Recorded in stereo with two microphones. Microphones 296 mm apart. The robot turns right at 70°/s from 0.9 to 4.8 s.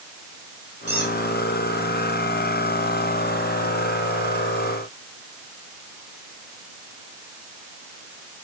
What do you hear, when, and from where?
0.9 s a squeak: 50° left (ahead or behind), 10 m; by 1.1 s 65° left (ahead or behind), 10 m